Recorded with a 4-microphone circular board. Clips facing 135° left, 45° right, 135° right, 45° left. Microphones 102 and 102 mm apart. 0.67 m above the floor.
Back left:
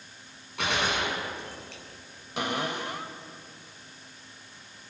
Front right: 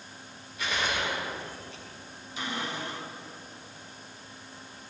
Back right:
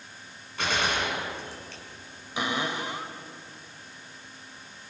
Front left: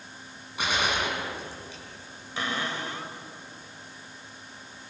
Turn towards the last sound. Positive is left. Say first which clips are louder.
# back left 4 dB, back right 2 dB
turn(degrees=150)